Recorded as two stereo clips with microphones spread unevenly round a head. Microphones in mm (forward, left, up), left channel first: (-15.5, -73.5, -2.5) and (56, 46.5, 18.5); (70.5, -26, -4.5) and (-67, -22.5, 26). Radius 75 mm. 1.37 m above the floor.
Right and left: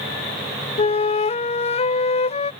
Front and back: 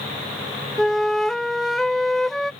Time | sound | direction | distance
0.8 | a flute | 85° right | ?